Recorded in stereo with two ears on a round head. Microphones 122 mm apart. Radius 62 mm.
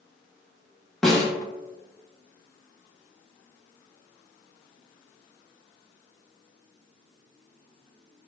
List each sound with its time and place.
1.0 s a snare drum: centre (ahead or behind), 0.7 m